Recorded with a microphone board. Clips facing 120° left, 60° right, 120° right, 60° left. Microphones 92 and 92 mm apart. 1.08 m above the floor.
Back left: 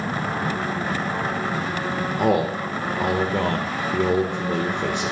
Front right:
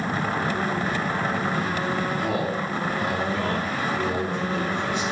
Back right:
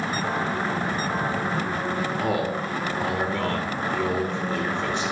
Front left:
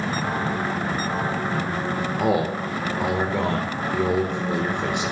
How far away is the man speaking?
About 1.1 m.